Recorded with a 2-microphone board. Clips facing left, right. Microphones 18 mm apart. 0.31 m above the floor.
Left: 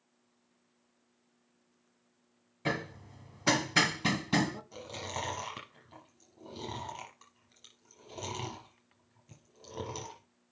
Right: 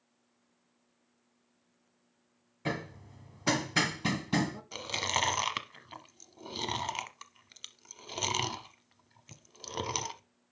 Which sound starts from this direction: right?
Chewing, at 4.7 s.